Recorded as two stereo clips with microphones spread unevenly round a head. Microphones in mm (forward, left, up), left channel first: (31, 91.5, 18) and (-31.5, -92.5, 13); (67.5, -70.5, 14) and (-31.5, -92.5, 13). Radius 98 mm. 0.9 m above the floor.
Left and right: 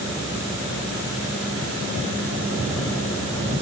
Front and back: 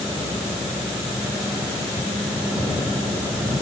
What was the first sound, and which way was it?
Only background noise.